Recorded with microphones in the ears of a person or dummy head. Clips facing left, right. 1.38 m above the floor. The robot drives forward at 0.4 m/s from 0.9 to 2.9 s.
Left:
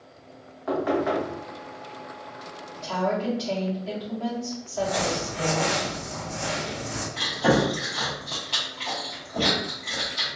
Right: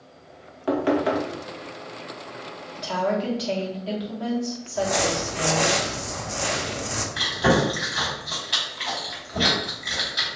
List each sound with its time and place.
0.7 s knocking: 40° right (ahead or behind), 0.8 m; by 1.3 s 30° right (ahead or behind), 0.9 m
2.8 s a woman speaking: 15° right (ahead or behind), 1.2 m
4.8 s crumpling: 55° right (ahead or behind), 0.6 m
7.2 s chewing: 15° right (ahead or behind), 1.9 m